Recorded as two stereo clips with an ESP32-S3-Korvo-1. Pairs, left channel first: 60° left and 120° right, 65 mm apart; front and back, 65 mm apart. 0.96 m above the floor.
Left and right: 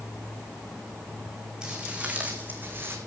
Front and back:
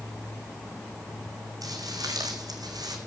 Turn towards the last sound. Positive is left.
turn(degrees=-175)